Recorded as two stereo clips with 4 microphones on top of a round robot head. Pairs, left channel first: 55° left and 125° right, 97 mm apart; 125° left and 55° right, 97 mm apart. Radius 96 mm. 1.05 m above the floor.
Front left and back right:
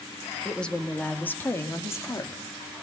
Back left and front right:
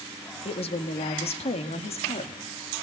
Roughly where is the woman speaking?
Behind left.